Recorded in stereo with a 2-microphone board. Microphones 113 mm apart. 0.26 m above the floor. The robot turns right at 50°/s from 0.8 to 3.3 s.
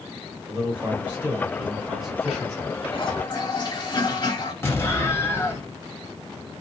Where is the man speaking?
20° right (ahead or behind), 1.3 m; by 2.8 s 10° left (ahead or behind), 1.3 m.